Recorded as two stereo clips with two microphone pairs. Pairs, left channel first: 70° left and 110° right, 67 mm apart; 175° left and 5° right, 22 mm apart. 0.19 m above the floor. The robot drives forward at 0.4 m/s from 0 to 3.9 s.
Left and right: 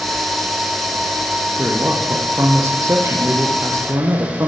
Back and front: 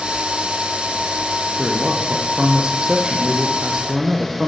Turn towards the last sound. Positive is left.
turn(degrees=-65)